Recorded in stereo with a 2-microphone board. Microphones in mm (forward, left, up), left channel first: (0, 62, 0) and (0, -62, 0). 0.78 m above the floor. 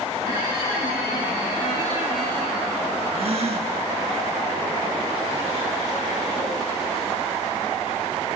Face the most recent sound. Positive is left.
turn(degrees=-55)  # may be behind; listen again after turning